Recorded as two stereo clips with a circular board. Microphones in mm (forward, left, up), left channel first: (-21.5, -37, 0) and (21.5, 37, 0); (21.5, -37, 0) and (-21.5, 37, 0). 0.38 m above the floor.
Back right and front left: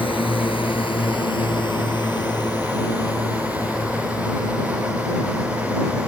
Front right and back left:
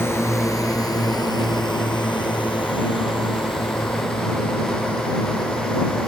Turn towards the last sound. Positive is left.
turn(degrees=-60)